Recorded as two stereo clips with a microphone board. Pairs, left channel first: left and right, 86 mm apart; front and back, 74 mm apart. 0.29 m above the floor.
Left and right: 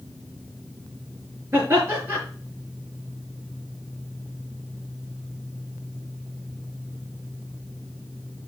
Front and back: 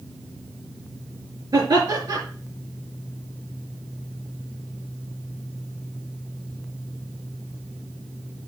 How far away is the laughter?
About 5 m.